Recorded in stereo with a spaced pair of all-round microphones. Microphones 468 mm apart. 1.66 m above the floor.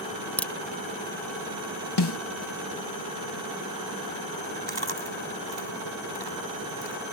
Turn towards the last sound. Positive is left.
turn(degrees=70)  # may be behind; listen again after turning